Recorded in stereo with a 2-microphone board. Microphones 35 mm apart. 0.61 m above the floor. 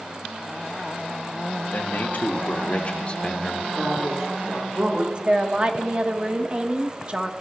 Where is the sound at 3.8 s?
40° right (ahead or behind), 2.5 m.